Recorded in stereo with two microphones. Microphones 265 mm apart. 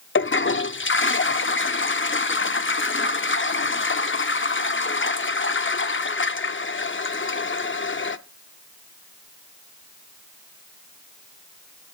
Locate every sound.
0.1 s a toilet flushing: 45° left (ahead or behind), 0.5 m